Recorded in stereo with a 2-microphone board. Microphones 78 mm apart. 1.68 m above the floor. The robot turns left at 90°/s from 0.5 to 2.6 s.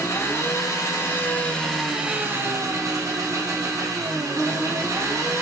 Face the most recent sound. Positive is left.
turn(degrees=-75)